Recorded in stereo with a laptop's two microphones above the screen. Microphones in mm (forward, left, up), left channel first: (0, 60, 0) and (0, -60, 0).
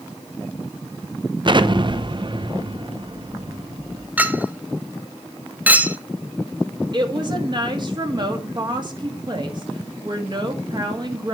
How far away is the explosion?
About 0.6 m.